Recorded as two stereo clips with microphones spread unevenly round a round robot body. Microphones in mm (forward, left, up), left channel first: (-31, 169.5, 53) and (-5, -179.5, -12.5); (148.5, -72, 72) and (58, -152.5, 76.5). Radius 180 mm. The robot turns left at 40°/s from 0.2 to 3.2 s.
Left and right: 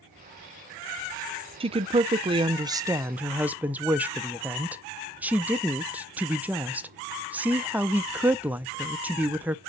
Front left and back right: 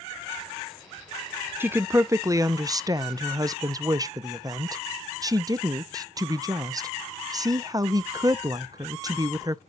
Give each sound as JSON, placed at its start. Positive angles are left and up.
{"t": 1.6, "sound": "a woman speaking", "azimuth_deg": -75, "distance_m": 0.5}